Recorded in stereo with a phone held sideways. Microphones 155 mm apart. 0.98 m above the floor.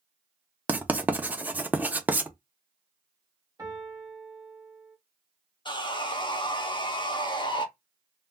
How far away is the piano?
About 1.1 m.